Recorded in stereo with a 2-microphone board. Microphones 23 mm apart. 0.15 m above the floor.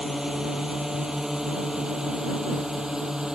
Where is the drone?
25° right (ahead or behind); by 3.3 s 30° right (ahead or behind).